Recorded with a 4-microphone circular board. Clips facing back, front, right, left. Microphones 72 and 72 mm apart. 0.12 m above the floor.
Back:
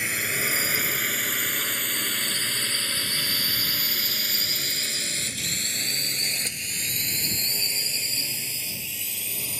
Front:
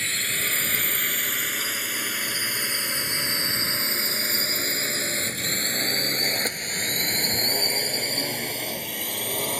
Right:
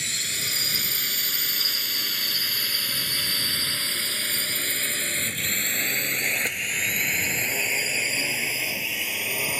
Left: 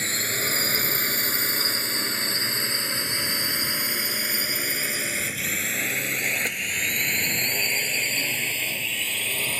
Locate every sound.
0.0 s a drone: 110° left; by 9.6 s 10° right